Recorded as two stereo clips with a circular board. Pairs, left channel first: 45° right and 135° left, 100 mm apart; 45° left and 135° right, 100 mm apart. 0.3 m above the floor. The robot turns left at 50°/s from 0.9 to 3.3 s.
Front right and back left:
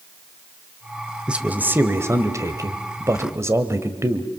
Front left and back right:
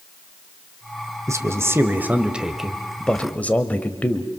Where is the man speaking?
155° right, 1.5 m; by 4.3 s 105° left, 1.5 m.